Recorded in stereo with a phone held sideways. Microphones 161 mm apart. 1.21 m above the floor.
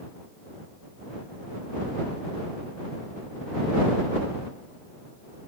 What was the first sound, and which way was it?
Only background noise.